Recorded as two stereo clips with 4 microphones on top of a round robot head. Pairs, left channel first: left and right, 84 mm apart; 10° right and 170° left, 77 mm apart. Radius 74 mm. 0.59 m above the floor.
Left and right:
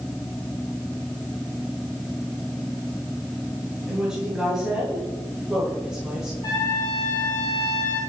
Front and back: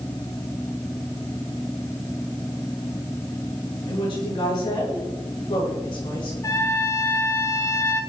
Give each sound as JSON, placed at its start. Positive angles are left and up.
{"t": 3.9, "sound": "a woman speaking", "azimuth_deg": -5, "distance_m": 9.5}
{"t": 6.4, "sound": "a trumpet", "azimuth_deg": 35, "distance_m": 8.5}